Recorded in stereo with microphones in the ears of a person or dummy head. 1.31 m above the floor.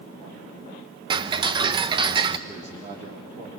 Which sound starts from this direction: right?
A man speaking, at 2.5 s.